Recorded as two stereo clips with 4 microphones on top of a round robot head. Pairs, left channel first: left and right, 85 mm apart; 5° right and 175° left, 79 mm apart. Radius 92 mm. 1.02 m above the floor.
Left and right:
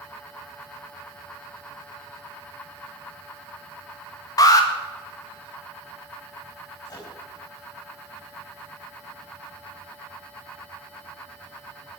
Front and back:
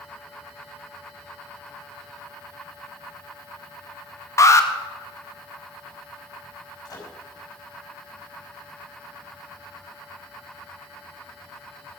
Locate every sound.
4.4 s an alarm: 45° left, 2 m
6.8 s a microwave: 35° left, 5 m